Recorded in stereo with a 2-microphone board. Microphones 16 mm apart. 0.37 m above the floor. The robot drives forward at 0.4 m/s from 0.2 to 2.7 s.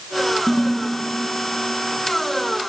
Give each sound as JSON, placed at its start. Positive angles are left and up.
{"t": 0.5, "sound": "a ringtone", "side_deg": 40, "distance_m": 1.9}